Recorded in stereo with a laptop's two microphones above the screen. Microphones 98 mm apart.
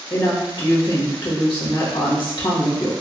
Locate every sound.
0.1 s a woman speaking: 65° left (ahead or behind), 1.5 m